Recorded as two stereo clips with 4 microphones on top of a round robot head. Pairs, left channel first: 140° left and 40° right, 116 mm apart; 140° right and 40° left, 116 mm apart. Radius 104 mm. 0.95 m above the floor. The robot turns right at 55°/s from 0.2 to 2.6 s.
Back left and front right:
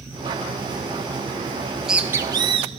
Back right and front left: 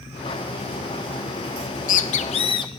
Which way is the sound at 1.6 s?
140° right.